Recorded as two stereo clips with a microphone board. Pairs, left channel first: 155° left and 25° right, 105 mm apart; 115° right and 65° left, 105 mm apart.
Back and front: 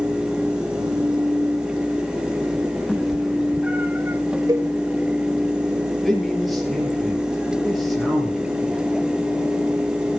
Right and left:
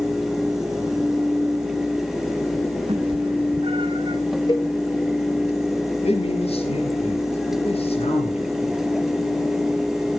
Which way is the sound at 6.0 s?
110° right.